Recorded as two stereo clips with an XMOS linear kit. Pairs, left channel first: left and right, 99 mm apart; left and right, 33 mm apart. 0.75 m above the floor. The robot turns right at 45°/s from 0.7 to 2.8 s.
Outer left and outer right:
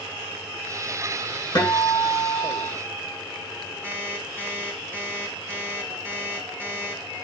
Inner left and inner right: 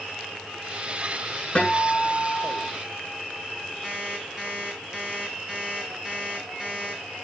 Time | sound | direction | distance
1.6 | a guitar | 135° left | 9 m
3.8 | an alarm clock | 25° right (ahead or behind) | 3.5 m